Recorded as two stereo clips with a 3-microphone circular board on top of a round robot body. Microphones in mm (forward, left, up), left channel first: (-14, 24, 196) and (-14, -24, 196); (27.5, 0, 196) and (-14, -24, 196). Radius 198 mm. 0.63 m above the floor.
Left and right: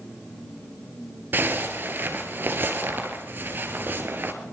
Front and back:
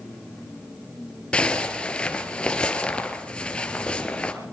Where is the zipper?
40° right, 2.5 m.